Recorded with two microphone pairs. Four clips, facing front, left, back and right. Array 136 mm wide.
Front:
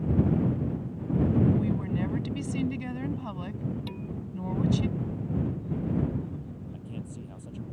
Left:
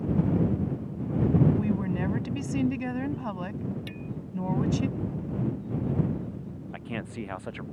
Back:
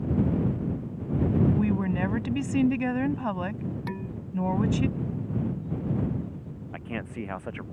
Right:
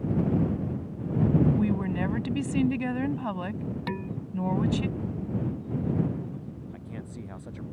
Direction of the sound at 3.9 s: 105° right.